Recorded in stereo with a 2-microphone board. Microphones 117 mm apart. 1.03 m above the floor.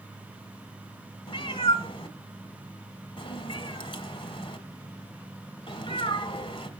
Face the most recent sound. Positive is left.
turn(degrees=45)  # may be behind; listen again after turning